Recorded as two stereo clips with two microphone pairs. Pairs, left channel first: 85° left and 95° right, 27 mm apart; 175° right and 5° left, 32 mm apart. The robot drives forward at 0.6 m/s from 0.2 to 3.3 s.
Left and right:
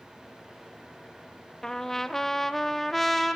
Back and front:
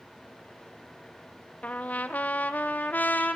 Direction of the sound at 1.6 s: 150° left.